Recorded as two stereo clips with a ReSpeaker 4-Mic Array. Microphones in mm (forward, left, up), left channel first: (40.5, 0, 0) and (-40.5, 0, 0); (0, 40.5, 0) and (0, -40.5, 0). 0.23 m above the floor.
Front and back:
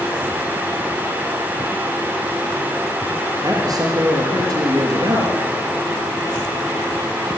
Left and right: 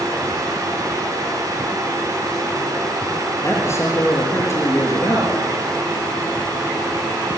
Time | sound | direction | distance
3.4 | a man speaking | 145° left | 5 m